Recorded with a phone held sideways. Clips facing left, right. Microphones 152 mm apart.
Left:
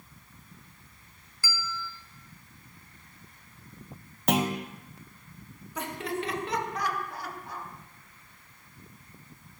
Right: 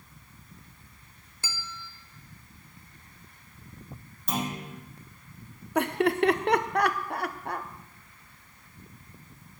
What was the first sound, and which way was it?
A bell, 25° right (ahead or behind).